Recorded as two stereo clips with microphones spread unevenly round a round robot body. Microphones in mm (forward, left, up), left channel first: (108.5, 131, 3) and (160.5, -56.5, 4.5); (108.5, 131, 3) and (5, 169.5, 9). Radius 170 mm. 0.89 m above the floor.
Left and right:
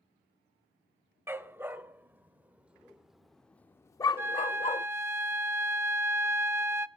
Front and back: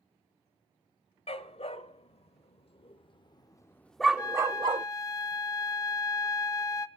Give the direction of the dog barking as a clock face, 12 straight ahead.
12 o'clock.